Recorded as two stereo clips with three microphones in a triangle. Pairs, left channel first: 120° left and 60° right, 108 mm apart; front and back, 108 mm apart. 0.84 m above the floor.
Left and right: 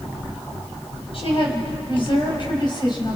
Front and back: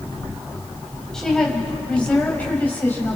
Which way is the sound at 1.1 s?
85° left.